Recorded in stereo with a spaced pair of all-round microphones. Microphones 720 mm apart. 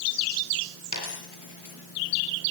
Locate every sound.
0.9 s a dropped coin: 25° left (ahead or behind), 4.5 m